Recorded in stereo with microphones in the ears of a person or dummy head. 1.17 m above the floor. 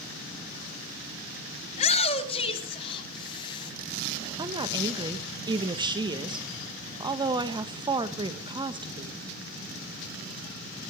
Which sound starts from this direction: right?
A woman speaking, at 4.4 s.